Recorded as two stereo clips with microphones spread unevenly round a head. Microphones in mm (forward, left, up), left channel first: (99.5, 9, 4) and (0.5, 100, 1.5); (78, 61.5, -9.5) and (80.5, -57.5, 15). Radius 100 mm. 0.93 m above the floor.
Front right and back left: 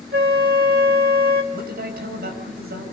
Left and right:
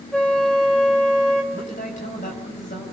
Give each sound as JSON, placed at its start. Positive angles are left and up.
{"t": 0.1, "sound": "a flute", "azimuth_deg": 180, "distance_m": 1.3}
{"t": 1.5, "sound": "a man speaking", "azimuth_deg": 140, "distance_m": 6.0}